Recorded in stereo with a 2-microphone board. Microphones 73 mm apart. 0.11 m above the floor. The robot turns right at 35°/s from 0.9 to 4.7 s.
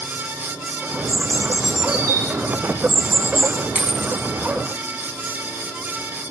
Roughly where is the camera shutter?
I don't hear a camera shutter.